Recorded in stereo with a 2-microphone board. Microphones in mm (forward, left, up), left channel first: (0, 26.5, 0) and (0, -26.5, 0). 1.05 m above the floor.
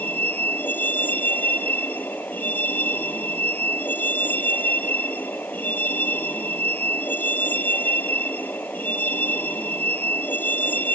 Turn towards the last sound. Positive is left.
turn(degrees=40)  # may be behind; listen again after turning